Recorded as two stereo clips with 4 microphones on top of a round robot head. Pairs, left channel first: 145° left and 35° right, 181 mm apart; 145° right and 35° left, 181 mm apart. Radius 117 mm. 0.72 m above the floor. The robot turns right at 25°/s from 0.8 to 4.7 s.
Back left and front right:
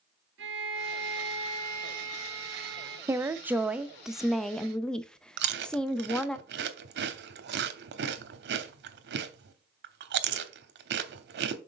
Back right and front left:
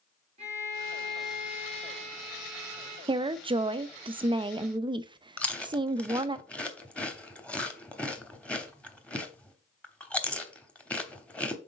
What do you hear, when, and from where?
0.4 s a violin: 20° right, 2.5 m; by 3.0 s 35° left, 2.5 m
3.1 s a woman speaking: 20° left, 0.5 m; by 6.4 s 60° left, 0.5 m
5.4 s chewing: 60° right, 0.9 m